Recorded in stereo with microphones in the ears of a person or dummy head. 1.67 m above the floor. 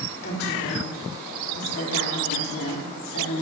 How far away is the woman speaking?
About 4.5 m.